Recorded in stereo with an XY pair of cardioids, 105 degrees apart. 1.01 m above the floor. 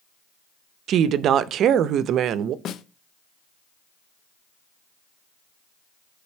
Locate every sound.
0.9 s a woman speaking: 70° right, 0.6 m
2.6 s a snare drum: 70° left, 0.6 m